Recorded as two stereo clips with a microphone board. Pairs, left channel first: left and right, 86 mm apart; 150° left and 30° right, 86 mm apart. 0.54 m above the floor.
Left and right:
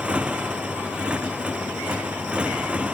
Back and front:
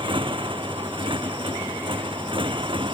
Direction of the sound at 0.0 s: 10° right.